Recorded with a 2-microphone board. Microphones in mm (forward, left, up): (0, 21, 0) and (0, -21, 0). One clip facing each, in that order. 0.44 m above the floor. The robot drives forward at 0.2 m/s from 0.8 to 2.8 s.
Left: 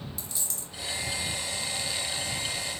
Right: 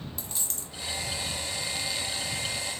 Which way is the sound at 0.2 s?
45° right (ahead or behind).